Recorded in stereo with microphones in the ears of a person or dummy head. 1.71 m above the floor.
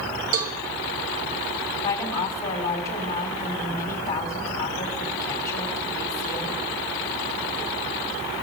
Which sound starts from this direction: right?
A cowbell, at 0.3 s.